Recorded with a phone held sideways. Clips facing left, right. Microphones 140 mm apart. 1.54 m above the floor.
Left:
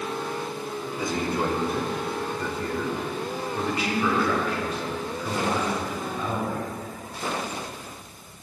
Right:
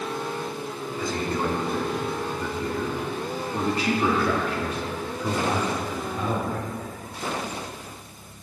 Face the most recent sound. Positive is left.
turn(degrees=-80)